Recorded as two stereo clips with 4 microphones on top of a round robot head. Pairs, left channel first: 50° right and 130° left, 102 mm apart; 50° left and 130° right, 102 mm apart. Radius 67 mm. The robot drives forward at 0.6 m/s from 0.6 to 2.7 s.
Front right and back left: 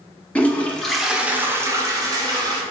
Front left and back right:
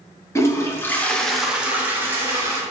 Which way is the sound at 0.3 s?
20° left.